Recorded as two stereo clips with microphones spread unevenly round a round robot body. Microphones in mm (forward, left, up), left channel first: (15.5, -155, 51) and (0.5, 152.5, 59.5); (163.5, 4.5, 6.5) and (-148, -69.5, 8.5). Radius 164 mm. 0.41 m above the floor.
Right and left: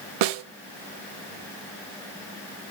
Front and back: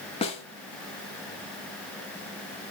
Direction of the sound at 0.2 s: 85° left.